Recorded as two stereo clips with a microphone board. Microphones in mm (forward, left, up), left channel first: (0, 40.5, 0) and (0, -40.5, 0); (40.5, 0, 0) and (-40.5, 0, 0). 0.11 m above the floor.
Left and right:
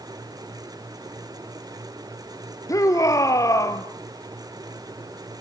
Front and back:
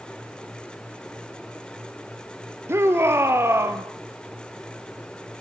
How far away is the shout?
About 3 m.